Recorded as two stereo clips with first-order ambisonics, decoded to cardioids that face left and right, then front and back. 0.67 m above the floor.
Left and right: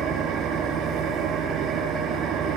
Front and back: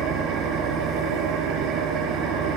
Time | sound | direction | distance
0.0 | an engine running | 145° right | 5.5 m